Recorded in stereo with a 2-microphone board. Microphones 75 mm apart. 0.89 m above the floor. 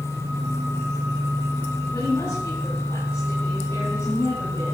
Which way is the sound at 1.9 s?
45° left (ahead or behind).